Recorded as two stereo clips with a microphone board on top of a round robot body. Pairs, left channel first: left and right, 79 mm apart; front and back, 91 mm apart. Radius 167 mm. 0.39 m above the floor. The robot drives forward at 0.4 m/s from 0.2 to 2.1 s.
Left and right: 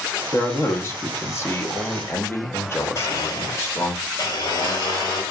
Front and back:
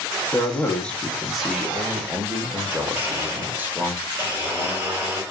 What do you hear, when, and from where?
0.3 s a man speaking: 55° left, 1.1 m; by 4.0 s 125° left, 1.1 m
3.0 s a blender: 115° left, 2 m